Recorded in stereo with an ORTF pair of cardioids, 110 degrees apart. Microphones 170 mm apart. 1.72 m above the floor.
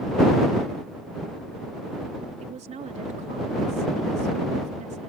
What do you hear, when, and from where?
2.4 s a woman speaking: 45° right